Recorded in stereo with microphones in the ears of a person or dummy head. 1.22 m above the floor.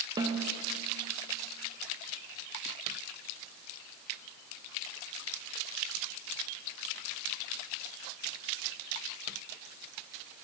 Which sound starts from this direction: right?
A snare drum, at 0.2 s.